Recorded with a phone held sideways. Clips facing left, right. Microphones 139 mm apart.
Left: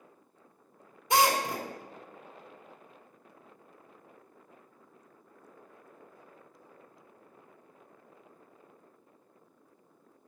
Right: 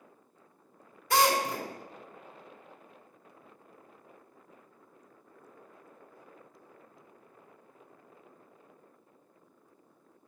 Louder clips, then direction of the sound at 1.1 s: Even; 20° left (ahead or behind).